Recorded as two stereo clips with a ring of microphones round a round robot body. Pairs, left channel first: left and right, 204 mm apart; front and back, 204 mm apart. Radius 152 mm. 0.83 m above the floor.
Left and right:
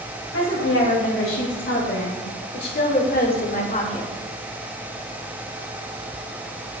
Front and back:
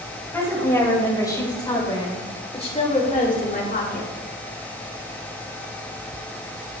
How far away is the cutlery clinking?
No cutlery clinking in this recording.